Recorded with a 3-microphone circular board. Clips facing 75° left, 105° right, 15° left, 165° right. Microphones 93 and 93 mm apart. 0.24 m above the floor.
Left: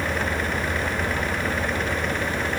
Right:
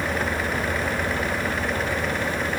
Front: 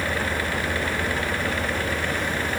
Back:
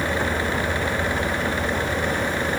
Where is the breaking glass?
I don't hear breaking glass.